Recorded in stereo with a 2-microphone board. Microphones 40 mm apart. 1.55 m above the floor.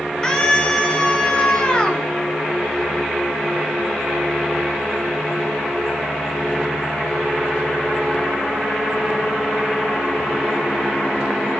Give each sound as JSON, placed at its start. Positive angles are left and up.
{"t": 0.2, "sound": "a scream", "side_deg": 20, "distance_m": 6.5}